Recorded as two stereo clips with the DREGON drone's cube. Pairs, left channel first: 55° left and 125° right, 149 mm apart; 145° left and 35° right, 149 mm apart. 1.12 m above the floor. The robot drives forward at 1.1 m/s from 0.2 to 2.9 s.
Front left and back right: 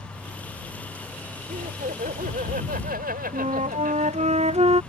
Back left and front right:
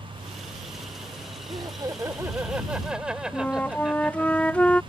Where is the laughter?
95° right; by 4.3 s 120° right.